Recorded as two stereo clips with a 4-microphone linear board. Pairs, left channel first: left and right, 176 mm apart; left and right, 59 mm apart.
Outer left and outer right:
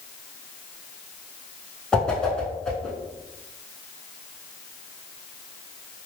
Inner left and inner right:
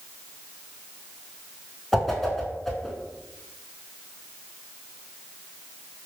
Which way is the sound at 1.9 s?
5° left (ahead or behind).